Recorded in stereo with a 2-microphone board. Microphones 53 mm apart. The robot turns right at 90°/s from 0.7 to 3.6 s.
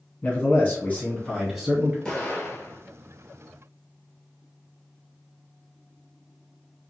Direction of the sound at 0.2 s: 120° left.